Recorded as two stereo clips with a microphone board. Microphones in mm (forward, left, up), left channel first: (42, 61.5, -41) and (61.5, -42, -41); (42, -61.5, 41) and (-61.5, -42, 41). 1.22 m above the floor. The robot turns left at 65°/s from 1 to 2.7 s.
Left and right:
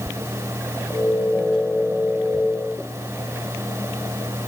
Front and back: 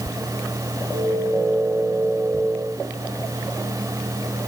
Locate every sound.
Only background noise.